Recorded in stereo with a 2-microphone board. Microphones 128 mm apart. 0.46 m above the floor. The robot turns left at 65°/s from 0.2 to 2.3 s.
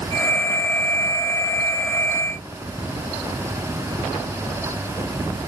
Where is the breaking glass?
No breaking glass in this recording.